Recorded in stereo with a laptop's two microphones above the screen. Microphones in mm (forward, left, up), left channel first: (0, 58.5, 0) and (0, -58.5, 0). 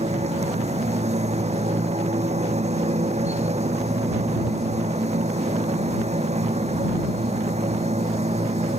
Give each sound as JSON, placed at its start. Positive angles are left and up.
{"t": 0.0, "sound": "a machine running", "side_deg": -70}